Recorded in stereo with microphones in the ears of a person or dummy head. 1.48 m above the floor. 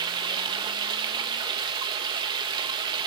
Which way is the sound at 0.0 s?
30° right (ahead or behind).